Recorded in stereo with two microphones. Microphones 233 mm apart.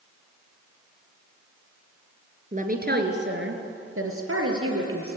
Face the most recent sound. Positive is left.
turn(degrees=-70)  # may be behind; listen again after turning